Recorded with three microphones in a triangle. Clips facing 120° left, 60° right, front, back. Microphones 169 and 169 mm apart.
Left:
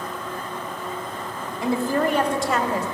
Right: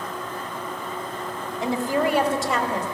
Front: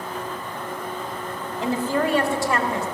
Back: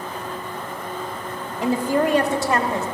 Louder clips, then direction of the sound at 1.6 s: Left 1 dB, back 3 dB; 110° right.